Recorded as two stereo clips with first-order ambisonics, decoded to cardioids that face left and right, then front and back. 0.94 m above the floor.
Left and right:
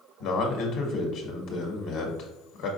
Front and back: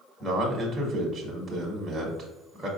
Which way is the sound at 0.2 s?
100° left.